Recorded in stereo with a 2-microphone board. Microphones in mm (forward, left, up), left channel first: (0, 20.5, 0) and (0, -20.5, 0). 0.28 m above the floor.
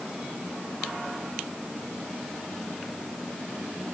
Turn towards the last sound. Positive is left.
No sound to turn to.